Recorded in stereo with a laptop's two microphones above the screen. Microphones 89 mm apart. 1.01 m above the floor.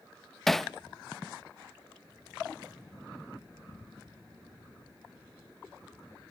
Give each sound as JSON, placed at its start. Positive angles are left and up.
{"t": 0.5, "sound": "hammering", "side_deg": 5, "distance_m": 0.5}